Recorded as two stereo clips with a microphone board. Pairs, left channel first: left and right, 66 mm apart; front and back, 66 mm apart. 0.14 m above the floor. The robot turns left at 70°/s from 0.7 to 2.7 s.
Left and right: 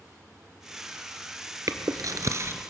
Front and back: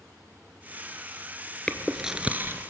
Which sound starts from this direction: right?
Chewing, at 1.7 s.